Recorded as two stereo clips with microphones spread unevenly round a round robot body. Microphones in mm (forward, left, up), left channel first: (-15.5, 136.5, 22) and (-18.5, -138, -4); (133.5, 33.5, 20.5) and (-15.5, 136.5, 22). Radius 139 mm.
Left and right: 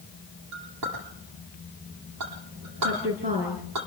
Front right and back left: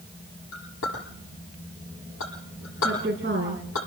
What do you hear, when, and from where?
0.5 s a clink: 55° right, 9.5 m
2.8 s a woman speaking: 155° right, 5 m